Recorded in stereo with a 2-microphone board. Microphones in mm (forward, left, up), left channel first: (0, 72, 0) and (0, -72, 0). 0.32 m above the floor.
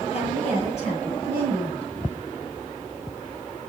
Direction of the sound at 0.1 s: 45° left (ahead or behind).